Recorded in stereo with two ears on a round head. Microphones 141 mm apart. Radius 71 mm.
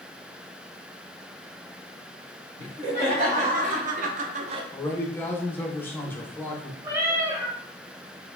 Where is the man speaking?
10° left (ahead or behind), 0.7 m.